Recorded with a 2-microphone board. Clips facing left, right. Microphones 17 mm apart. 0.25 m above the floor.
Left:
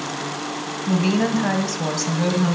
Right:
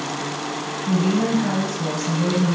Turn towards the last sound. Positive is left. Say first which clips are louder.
# even
turn(degrees=50)  # may be behind; listen again after turning